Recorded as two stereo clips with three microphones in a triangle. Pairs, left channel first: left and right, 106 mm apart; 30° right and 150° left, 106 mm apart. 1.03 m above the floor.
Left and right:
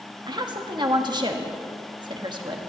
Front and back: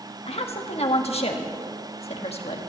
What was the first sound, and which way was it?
A woman speaking, 45° right.